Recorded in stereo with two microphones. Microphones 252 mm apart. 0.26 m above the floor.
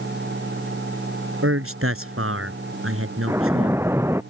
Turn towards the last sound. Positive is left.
turn(degrees=-10)  # may be behind; listen again after turning